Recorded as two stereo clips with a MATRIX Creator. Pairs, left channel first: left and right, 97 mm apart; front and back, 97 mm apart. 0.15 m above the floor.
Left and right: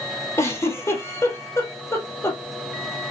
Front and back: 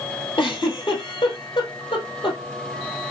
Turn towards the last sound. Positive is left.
turn(degrees=25)